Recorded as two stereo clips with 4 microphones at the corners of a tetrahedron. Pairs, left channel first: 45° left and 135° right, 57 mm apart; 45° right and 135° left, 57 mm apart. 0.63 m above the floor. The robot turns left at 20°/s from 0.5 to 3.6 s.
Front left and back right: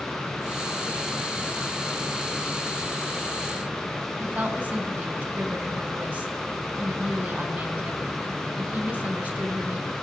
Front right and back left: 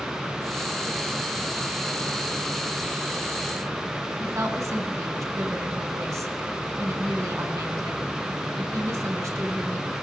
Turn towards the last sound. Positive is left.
turn(degrees=165)